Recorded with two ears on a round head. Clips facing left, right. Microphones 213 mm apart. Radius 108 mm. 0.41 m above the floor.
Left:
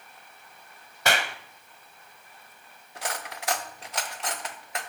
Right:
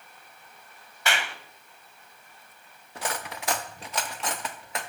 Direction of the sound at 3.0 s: 70° right (ahead or behind).